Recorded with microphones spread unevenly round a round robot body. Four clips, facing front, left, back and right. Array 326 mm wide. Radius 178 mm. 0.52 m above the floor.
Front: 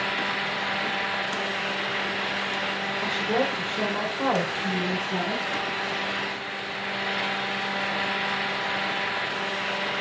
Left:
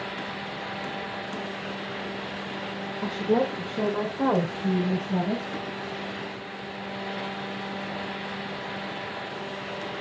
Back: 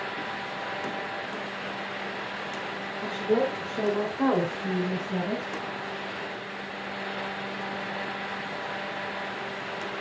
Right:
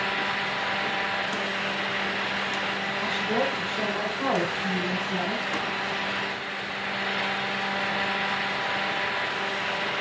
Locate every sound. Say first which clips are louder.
3.0 s a woman speaking: left 4 dB, back 1 dB; 80° left, 2 m; by 5.6 s 105° left, 4 m